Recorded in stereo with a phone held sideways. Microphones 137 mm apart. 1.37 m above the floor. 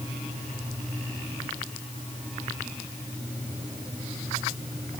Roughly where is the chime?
I don't hear a chime.